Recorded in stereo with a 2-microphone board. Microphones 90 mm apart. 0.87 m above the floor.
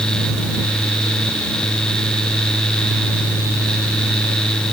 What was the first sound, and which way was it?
Only background noise.